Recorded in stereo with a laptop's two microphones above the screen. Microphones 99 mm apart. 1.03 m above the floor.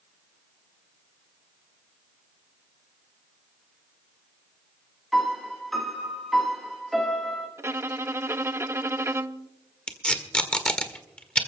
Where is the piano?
Centre (ahead or behind), 1.6 m.